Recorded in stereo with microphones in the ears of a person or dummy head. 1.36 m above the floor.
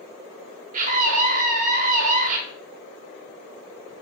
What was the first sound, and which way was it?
A scream, 50° right (ahead or behind).